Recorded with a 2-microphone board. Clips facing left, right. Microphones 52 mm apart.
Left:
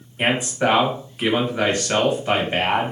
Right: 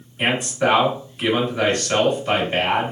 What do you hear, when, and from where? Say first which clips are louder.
0.2 s a man speaking: even; 15° left (ahead or behind), 1.3 m